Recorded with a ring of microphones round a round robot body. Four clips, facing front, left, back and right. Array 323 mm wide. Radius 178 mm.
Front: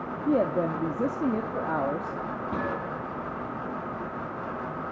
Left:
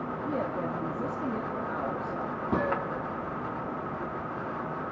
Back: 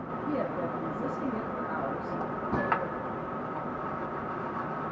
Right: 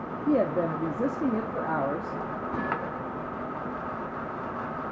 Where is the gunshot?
100° left, 7.5 m.